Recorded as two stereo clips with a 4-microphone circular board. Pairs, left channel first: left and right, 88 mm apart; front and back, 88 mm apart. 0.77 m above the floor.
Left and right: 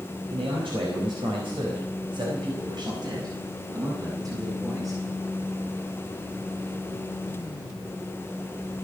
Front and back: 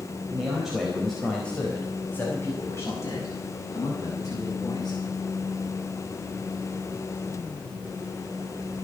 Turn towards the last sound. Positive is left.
turn(degrees=-40)